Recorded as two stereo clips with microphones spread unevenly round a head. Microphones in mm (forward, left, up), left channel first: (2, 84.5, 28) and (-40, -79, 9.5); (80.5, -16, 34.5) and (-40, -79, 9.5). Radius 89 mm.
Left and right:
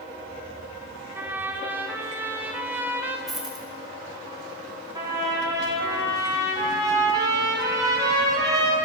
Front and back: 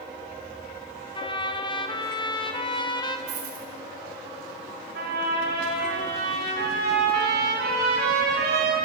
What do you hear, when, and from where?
1.1 s a trumpet: 20° right, 0.8 m
3.3 s a dropped coin: 165° left, 2.5 m
5.0 s a trumpet: 175° right, 3 m